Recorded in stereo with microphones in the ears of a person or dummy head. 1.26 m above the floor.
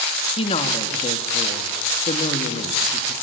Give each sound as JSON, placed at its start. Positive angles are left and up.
{"t": 0.4, "sound": "a woman speaking", "side_deg": 35, "distance_m": 2.5}